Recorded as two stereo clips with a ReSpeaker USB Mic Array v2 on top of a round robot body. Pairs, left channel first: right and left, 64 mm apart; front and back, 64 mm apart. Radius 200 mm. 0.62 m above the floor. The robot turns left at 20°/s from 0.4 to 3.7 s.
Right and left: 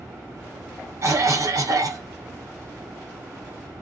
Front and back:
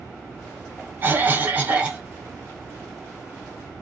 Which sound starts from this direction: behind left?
A cough, at 1.0 s.